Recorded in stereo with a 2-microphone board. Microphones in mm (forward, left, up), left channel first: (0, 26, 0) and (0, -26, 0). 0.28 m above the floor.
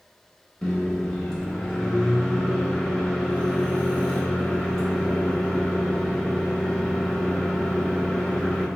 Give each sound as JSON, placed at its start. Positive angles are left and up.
{"t": 0.6, "sound": "a microwave", "side_deg": 10, "distance_m": 0.7}